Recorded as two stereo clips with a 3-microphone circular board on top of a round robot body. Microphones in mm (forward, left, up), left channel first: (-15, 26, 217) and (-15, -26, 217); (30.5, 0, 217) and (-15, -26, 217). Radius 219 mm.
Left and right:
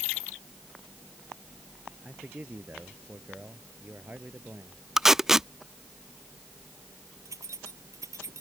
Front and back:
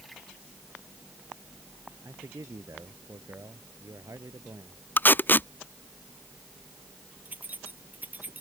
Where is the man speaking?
150° right.